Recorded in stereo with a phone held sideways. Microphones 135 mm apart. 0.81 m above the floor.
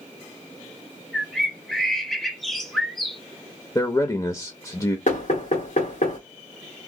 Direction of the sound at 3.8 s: 25° left (ahead or behind).